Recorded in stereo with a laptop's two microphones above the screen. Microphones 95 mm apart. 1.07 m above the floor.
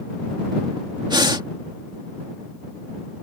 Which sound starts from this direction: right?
Breathing, at 1.1 s.